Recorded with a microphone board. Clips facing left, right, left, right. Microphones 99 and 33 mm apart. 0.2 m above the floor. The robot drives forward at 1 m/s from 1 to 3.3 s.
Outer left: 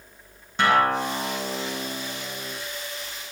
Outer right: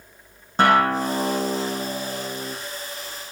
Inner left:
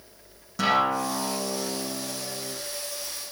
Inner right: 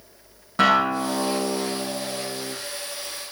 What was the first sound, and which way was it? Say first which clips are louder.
A guitar: outer right 3 dB, inner right 4 dB; 40° right (ahead or behind).